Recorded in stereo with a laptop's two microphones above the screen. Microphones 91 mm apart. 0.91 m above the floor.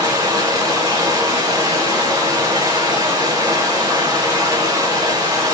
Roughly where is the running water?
Right.